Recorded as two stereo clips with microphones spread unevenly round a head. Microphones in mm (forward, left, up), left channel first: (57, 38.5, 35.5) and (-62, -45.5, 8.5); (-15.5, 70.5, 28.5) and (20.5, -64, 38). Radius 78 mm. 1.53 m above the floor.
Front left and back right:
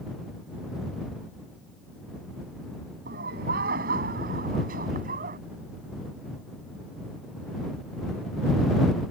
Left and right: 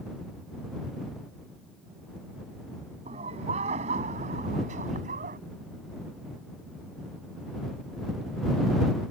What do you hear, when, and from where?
3.0 s laughter: 120° right; by 5.4 s 110° right